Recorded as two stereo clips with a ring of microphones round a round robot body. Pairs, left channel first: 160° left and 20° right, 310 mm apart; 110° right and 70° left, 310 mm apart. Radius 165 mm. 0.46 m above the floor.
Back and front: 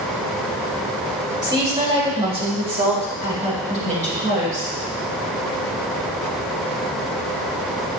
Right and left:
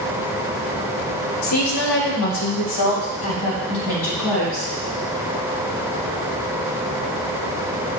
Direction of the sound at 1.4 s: 100° right.